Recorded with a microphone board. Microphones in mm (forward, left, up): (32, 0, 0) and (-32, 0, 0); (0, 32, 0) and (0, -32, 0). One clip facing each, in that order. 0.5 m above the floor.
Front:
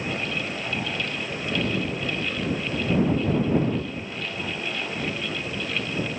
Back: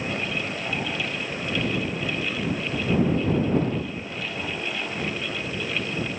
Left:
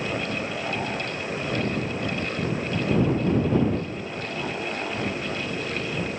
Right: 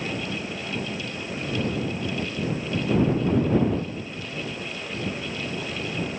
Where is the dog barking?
I don't hear a dog barking.